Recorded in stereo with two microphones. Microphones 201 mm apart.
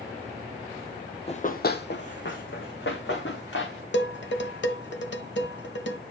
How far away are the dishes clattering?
About 1.0 m.